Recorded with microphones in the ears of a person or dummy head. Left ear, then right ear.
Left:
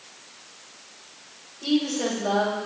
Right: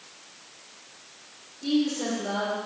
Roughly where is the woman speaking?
Left.